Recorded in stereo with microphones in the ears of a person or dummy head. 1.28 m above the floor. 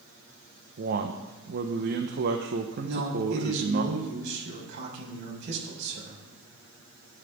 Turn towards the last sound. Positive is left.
turn(degrees=-60)  # may be behind; listen again after turning